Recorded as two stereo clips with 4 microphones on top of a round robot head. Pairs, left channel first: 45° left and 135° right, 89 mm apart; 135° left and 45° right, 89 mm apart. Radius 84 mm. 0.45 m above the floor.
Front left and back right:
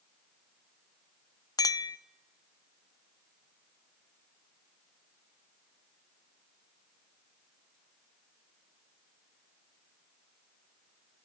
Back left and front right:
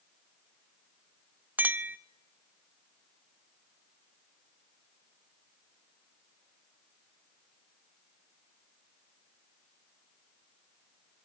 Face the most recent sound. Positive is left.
turn(degrees=20)